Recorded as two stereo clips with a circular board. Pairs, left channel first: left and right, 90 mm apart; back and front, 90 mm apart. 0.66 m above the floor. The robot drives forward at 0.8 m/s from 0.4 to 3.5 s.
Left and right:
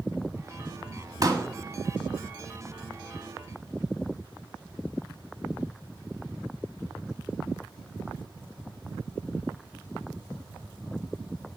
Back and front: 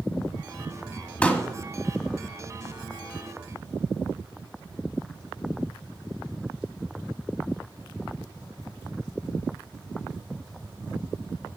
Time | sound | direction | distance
1.2 | a pop | 110° right | 1.5 m